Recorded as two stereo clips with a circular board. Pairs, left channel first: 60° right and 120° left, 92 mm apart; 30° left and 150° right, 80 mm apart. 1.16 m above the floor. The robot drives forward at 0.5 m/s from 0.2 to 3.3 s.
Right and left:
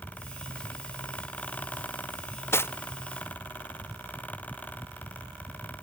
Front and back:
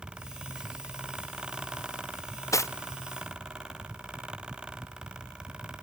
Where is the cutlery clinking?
5° right, 0.6 m.